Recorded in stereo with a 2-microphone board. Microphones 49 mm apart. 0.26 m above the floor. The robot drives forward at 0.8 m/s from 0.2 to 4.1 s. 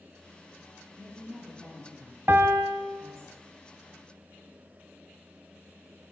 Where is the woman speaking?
65° right (ahead or behind), 5.5 m; by 3.3 s 80° right, 5 m.